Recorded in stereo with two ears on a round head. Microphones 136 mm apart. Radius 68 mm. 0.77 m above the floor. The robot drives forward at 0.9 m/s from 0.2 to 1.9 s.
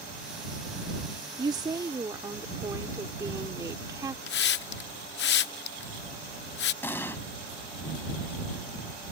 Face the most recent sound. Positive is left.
turn(degrees=15)  # may be behind; listen again after turning